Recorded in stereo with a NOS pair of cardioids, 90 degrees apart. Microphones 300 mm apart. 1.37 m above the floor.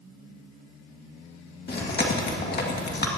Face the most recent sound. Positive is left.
turn(degrees=35)